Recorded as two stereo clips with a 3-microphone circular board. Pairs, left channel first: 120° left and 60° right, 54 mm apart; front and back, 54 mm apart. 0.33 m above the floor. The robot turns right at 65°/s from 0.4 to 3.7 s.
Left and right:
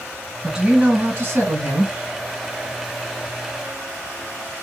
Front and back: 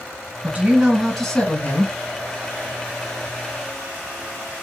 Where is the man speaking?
135° right, 1.6 m; by 1.9 s 35° right, 1.6 m.